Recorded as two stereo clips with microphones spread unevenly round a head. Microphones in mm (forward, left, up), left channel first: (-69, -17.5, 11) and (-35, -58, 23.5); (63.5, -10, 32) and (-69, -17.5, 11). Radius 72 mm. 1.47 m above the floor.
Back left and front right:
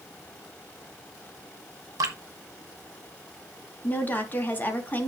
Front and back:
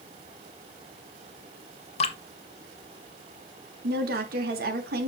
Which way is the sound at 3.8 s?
175° right.